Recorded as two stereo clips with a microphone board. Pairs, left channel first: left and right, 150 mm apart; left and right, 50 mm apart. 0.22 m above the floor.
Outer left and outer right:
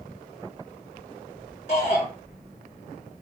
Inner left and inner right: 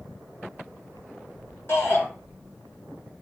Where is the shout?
50° left (ahead or behind), 2.5 m.